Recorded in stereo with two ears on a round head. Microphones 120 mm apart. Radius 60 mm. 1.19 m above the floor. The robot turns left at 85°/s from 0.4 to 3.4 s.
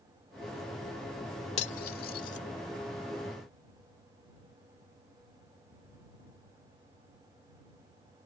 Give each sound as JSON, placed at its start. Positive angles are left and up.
{"t": 1.6, "sound": "cutlery clinking", "side_deg": 55}